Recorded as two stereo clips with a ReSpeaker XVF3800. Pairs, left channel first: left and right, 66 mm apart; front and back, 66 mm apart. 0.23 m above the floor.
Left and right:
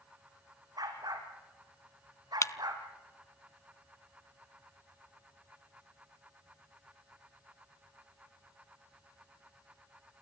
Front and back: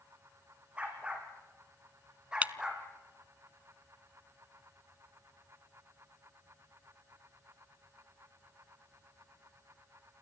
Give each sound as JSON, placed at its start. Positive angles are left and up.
{"t": 0.8, "sound": "a dog barking", "azimuth_deg": -110, "distance_m": 5.5}
{"t": 2.4, "sound": "breaking glass", "azimuth_deg": 115, "distance_m": 0.5}